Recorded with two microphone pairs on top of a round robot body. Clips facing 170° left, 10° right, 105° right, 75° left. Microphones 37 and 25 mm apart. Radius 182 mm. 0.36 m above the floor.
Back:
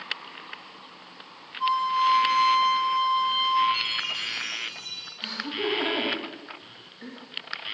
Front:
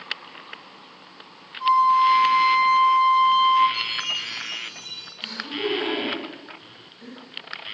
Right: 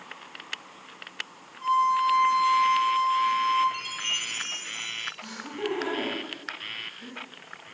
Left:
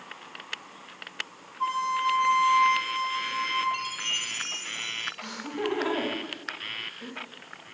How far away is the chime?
About 3 m.